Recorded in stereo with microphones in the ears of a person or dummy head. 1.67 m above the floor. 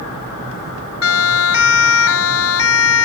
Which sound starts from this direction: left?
A siren, at 1.0 s.